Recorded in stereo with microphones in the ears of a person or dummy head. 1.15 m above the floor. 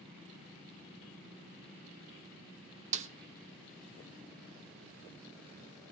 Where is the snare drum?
35° right (ahead or behind), 0.6 m.